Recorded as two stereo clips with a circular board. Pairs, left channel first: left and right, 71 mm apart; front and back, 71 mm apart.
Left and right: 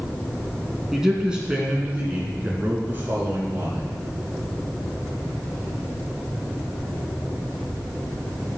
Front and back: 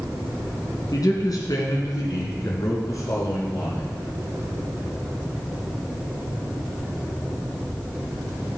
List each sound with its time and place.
0.9 s a man speaking: 10° right, 2.5 m; by 3.8 s 40° right, 3 m